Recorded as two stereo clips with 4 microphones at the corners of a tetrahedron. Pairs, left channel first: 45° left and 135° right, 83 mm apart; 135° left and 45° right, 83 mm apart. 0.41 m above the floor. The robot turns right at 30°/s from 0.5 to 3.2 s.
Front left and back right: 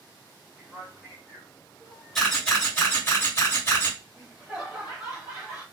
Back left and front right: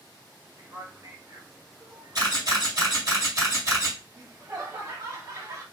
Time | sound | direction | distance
0.6 | a man speaking | 55° right | 1.3 m
2.1 | a camera shutter | 45° right | 1.9 m
4.1 | laughter | 55° right | 2 m